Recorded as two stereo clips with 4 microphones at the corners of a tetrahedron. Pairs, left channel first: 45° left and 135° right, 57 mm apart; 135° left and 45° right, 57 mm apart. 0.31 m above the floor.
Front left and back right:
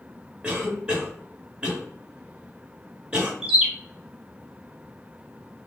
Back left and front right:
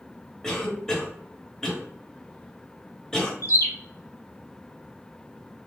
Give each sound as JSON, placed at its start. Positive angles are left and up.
{"t": 0.4, "sound": "a cough", "azimuth_deg": -155, "distance_m": 1.0}
{"t": 3.4, "sound": "a bird", "azimuth_deg": 150, "distance_m": 1.1}